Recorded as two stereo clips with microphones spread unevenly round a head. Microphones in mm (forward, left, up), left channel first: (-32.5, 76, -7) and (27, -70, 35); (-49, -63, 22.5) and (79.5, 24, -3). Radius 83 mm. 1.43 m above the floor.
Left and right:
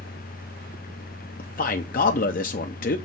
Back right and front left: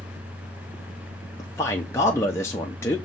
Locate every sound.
0.0 s a fan: 115° left, 0.8 m
1.4 s a man speaking: 135° left, 0.8 m